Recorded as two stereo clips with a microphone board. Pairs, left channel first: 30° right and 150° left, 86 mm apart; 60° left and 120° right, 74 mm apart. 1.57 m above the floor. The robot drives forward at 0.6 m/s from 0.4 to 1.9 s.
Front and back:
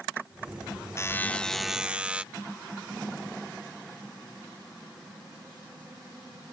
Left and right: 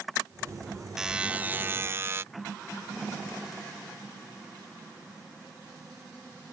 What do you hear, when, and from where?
1.0 s a buzzer: 45° right; by 2.2 s 140° right